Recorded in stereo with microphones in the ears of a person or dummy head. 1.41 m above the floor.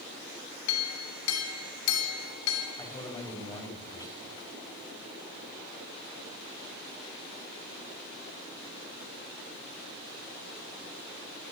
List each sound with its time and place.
0.7 s a clink: 80° left, 3 m
2.8 s a man speaking: 20° left (ahead or behind), 6 m